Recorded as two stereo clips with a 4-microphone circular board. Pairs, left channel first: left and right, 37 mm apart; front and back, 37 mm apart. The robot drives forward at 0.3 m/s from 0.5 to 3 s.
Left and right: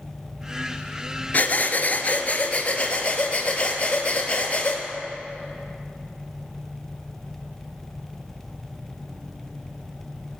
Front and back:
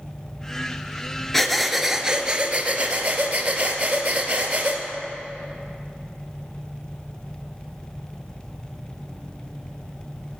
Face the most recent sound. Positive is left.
turn(degrees=140)